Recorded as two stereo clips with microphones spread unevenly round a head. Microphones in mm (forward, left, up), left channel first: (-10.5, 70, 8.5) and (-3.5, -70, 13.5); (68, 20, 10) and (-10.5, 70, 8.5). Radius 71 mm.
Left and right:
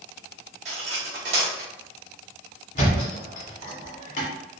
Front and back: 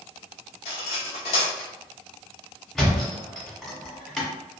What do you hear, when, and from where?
0.7 s cutlery clinking: 40° right, 1.0 m
2.8 s a thud: 55° left, 1.3 m